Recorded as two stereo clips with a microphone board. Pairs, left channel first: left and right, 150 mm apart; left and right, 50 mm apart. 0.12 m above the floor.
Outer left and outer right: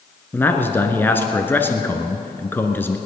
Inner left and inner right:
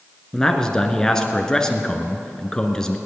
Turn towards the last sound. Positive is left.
turn(degrees=15)  # may be behind; listen again after turning